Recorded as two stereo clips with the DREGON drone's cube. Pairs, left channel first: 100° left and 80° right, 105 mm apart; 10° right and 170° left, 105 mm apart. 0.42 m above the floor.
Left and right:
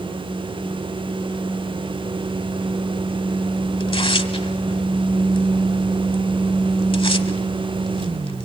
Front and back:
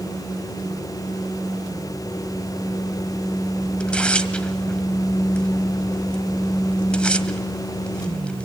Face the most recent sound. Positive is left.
turn(degrees=70)